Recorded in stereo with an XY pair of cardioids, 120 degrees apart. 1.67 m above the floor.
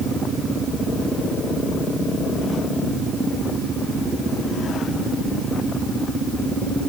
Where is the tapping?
I don't hear tapping.